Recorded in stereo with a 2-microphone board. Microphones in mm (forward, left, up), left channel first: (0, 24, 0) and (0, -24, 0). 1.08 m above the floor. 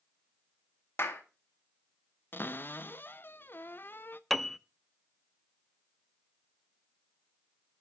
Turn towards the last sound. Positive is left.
turn(degrees=5)  # may be behind; listen again after turning